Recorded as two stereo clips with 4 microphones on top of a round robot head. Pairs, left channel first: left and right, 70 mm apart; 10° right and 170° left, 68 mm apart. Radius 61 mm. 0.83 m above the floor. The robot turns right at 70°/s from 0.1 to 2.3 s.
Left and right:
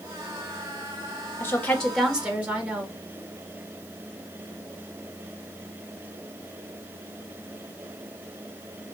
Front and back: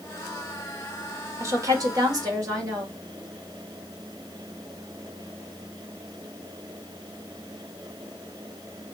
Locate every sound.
1.4 s a woman speaking: 140° left, 1.4 m; by 3.0 s 160° right, 1.4 m